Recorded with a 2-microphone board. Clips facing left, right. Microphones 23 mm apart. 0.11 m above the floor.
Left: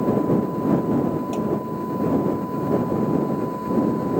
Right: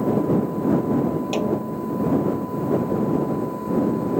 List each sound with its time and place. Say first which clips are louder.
1.3 s a snare drum: right 1 dB; 60° right (ahead or behind)